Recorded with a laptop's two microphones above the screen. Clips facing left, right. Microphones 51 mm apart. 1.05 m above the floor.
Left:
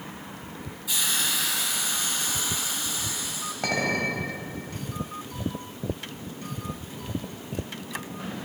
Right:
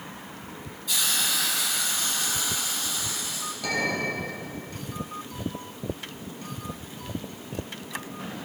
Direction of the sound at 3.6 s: 45° left (ahead or behind).